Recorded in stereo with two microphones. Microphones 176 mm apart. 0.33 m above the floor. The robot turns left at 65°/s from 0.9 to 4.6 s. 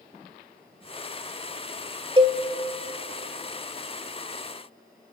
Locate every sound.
2.2 s a cowbell: 30° right (ahead or behind), 1.1 m; by 2.4 s 35° right (ahead or behind), 1.1 m